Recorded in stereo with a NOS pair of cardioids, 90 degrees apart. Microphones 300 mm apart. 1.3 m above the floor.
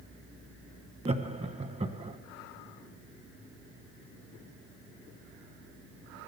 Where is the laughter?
20° right, 1.2 m.